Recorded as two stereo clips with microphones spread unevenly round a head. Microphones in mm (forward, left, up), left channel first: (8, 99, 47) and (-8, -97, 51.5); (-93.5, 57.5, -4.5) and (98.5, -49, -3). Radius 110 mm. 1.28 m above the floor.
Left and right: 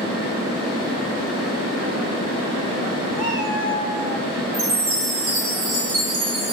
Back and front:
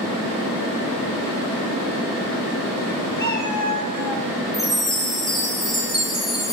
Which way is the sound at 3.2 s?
40° right.